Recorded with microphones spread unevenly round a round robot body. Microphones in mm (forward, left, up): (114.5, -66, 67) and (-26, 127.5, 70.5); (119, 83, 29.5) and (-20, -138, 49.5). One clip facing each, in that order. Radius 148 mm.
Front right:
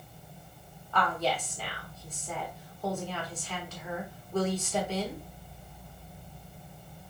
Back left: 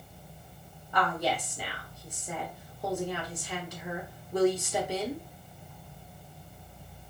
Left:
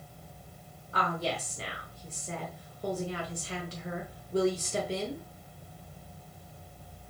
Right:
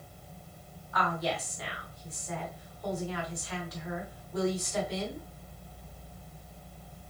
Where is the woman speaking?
55° left, 1.3 m.